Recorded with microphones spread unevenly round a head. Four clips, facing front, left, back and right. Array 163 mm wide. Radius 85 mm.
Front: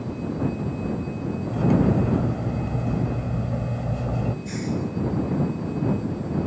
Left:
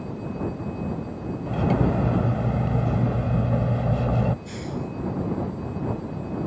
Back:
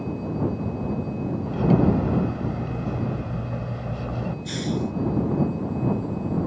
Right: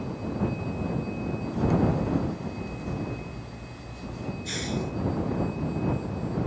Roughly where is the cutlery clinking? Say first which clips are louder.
Left 2 dB, back 1 dB; left.